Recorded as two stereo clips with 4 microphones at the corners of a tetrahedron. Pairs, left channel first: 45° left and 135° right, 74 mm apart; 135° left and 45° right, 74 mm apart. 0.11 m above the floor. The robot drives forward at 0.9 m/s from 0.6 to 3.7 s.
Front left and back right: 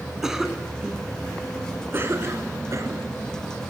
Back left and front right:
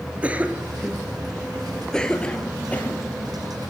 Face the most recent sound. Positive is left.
turn(degrees=-170)